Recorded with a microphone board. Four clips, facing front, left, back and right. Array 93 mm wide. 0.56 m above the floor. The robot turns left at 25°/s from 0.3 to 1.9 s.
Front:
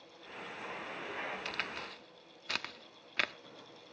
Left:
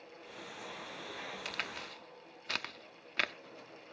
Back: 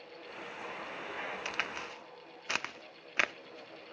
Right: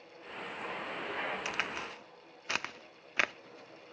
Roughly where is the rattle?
No rattle in this recording.